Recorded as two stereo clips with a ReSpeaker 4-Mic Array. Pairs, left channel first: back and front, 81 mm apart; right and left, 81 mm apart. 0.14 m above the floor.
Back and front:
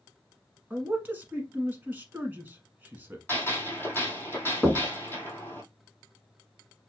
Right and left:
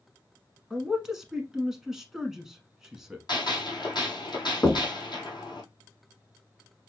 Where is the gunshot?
120° right, 2 m.